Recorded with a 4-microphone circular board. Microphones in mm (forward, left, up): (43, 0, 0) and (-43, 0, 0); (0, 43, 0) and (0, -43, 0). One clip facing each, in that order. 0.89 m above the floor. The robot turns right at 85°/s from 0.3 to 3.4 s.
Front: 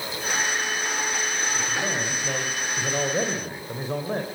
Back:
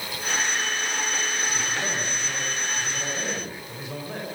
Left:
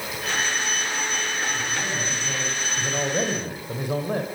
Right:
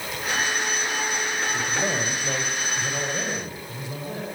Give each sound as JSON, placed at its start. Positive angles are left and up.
{"t": 1.5, "sound": "a man speaking", "azimuth_deg": -105, "distance_m": 4.0}